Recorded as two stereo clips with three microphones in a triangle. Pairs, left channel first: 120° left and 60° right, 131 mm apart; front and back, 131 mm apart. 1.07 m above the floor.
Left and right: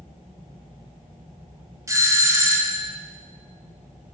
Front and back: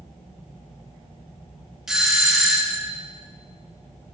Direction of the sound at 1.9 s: 95° right.